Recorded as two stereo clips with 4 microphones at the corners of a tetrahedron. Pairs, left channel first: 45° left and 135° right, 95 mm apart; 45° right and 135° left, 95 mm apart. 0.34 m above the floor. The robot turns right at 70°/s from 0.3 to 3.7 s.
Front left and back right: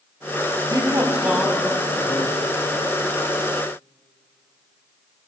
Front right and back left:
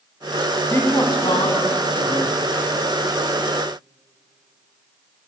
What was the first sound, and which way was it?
A man speaking, 105° right.